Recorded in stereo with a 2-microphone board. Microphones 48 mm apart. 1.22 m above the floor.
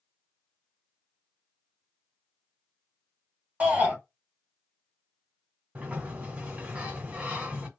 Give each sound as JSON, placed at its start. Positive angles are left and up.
{"t": 3.6, "sound": "a shout", "side_deg": -30, "distance_m": 1.8}
{"t": 5.8, "sound": "a sliding door", "side_deg": -30, "distance_m": 1.3}